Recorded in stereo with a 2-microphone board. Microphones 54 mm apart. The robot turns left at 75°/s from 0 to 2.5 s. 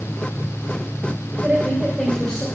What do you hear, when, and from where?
1.4 s a woman speaking: 145° right, 1.6 m; by 2.5 s 135° left, 1.6 m